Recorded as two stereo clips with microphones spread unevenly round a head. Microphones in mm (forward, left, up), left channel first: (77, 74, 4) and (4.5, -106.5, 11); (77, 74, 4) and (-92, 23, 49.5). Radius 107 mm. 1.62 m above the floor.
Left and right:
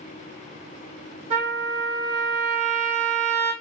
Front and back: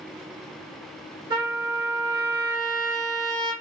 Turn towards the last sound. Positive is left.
turn(degrees=-140)